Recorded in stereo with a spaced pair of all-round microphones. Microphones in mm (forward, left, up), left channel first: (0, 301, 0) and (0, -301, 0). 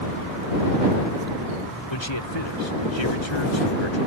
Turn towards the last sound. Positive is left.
turn(degrees=45)  # may be behind; listen again after turning